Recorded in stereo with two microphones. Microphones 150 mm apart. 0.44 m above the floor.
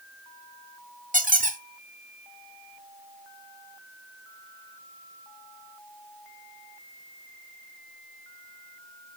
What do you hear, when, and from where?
1.1 s a squeak: 65° right (ahead or behind), 1.1 m